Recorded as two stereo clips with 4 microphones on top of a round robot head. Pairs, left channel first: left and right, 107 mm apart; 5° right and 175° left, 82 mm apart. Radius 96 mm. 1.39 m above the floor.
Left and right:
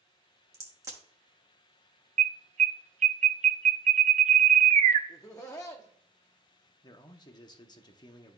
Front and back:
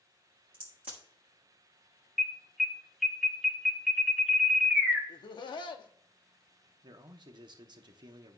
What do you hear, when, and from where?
0.5 s a crack: 145° right, 1.1 m
2.2 s an alarm: 95° right, 0.5 m
5.1 s laughter: 25° left, 0.8 m
6.8 s a man speaking: 140° left, 0.8 m